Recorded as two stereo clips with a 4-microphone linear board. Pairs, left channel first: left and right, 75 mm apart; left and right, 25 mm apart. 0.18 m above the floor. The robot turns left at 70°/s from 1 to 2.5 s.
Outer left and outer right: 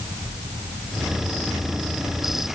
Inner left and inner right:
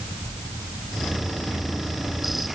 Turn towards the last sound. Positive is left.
No sound to turn to.